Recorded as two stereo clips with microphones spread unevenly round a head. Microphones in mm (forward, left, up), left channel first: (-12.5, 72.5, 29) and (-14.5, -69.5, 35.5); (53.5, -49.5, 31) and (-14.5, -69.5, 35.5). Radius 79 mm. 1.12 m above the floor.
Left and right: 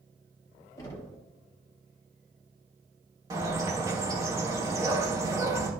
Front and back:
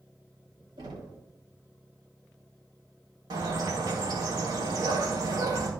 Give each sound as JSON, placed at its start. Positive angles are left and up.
{"t": 0.8, "sound": "knocking", "azimuth_deg": 155, "distance_m": 4.5}
{"t": 3.3, "sound": "a bird", "azimuth_deg": -155, "distance_m": 2.5}